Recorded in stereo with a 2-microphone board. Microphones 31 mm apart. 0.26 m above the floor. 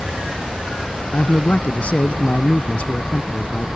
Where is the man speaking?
50° left (ahead or behind).